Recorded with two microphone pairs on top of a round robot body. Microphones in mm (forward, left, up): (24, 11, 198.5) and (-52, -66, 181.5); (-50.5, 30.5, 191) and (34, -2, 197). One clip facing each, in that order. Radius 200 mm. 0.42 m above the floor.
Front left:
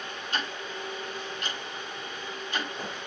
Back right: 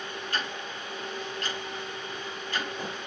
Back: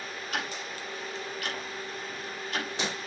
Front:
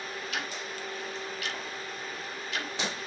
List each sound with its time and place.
0.3 s ticking: 115° left, 6.5 m